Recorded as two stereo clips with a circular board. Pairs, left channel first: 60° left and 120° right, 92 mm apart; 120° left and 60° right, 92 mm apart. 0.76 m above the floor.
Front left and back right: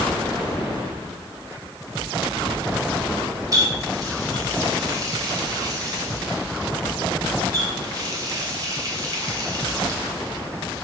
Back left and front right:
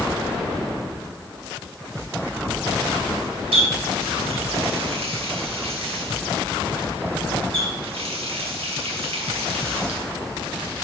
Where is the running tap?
70° right, 1.5 m.